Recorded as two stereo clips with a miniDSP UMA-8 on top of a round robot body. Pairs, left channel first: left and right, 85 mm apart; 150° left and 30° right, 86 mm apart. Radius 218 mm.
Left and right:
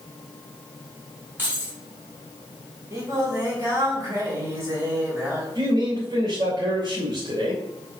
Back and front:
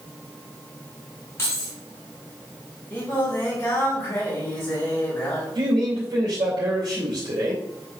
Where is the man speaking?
60° right, 3 m.